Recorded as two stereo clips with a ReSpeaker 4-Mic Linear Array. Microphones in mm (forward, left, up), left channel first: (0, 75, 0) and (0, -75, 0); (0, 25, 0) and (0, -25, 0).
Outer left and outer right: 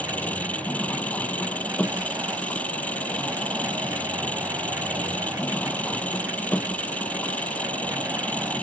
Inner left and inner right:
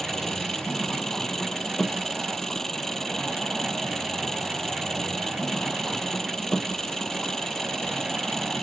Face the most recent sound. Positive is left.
turn(degrees=10)  # may be behind; listen again after turning